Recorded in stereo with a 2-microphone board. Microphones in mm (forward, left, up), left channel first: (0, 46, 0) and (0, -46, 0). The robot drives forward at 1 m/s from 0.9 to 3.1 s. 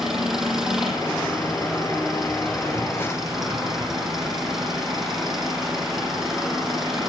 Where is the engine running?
5° right (ahead or behind), 9 m.